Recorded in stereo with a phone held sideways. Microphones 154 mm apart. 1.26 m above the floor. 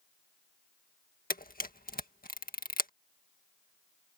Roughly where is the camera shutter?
Left.